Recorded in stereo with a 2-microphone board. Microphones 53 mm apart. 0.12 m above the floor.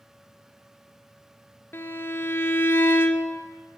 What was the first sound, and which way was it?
A violin, 45° left (ahead or behind).